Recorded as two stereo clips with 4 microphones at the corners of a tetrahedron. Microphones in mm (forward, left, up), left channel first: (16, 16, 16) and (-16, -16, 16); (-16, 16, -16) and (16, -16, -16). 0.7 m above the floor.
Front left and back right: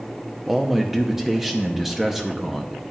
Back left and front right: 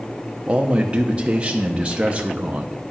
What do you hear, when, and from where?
0.5 s a man speaking: 55° right, 0.7 m